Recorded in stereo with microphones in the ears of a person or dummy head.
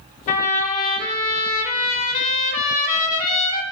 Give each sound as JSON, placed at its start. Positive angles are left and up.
{"t": 0.3, "sound": "a trumpet", "side_deg": 40, "distance_m": 1.8}